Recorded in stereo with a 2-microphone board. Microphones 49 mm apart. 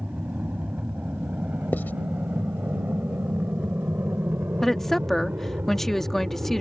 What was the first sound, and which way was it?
An aircraft, 35° right (ahead or behind).